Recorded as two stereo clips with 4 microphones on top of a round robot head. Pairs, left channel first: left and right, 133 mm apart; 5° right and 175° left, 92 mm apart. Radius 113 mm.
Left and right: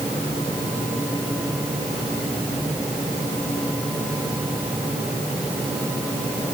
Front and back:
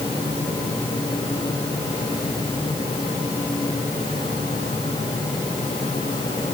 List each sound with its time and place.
Only background noise.